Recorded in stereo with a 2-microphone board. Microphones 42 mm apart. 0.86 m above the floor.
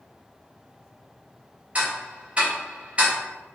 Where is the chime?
I don't hear a chime.